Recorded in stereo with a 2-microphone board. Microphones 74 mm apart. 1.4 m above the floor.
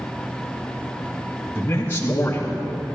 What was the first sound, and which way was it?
A man speaking, 35° left (ahead or behind).